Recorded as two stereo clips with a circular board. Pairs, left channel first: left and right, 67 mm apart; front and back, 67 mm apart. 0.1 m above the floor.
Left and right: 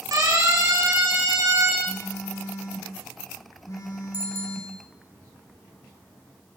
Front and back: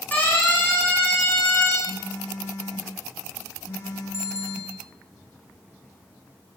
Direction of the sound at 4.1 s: 100° left.